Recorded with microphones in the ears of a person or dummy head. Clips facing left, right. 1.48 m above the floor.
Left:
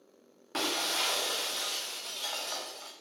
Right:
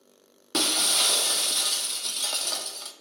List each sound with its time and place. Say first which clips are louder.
0.5 s breaking glass: right 4 dB; 45° right (ahead or behind), 0.8 m